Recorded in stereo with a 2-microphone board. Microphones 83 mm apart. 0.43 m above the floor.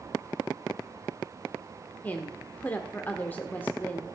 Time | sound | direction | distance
2.0 | a woman speaking | 20° left (ahead or behind) | 0.9 m